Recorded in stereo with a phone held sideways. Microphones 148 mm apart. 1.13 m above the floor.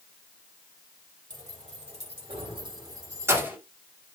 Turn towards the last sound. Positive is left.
turn(degrees=-10)  # may be behind; listen again after turning